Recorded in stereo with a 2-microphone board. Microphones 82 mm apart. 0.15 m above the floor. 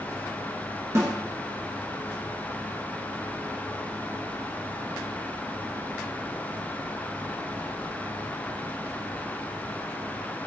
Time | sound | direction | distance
0.9 | a snare drum | 35° right (ahead or behind) | 0.6 m